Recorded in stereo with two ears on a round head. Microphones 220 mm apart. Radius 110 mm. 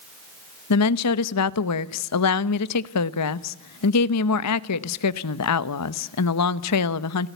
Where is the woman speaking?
80° left, 0.9 m.